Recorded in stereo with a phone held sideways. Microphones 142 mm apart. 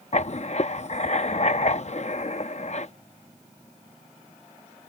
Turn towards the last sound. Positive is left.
turn(degrees=50)  # may be behind; listen again after turning